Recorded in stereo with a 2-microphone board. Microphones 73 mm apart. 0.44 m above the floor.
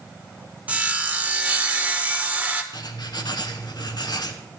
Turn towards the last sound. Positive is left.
turn(degrees=75)  # may be behind; listen again after turning